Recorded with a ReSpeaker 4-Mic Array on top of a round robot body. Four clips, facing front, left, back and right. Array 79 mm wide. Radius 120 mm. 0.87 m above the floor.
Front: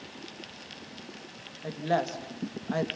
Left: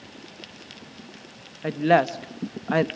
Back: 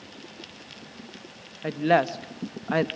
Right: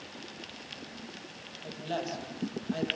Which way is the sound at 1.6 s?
125° left.